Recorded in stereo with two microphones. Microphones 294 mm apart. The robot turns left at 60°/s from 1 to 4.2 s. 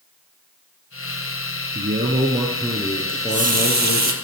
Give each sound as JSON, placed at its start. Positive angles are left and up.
{"t": 1.8, "sound": "a man speaking", "azimuth_deg": -115, "distance_m": 1.8}
{"t": 3.1, "sound": "a running tap", "azimuth_deg": -45, "distance_m": 1.8}